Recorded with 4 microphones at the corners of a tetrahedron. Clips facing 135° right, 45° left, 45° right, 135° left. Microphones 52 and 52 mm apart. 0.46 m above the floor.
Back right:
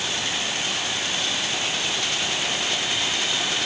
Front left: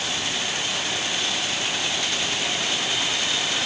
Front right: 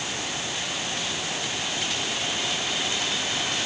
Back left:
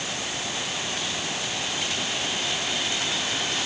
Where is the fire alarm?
No fire alarm in this recording.